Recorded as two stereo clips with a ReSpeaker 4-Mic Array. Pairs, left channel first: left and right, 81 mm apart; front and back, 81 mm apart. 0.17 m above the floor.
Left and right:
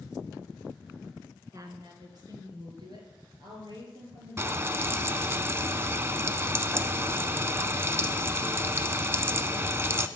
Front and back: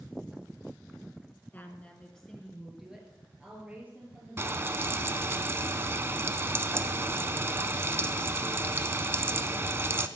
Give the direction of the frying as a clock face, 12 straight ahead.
4 o'clock.